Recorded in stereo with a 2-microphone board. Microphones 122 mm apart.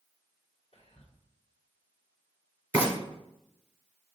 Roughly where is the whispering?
Left.